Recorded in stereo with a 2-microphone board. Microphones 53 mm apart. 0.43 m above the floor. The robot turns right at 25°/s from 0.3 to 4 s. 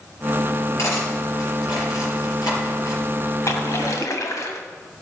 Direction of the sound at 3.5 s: 65° left (ahead or behind).